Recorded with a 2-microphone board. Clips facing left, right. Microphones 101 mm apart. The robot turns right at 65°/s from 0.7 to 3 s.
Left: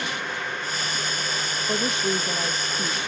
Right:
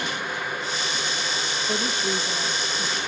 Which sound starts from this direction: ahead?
A woman speaking, at 1.7 s.